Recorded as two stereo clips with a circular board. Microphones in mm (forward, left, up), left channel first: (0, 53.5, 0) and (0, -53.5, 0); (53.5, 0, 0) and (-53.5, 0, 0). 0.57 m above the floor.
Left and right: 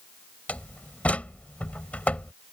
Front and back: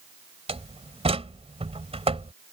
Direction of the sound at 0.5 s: 170° left.